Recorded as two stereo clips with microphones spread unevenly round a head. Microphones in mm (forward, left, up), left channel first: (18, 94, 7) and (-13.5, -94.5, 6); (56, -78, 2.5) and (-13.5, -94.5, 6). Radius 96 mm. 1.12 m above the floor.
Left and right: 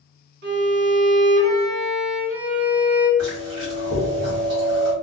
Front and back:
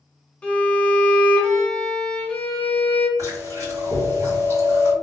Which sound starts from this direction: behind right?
Chewing, at 3.2 s.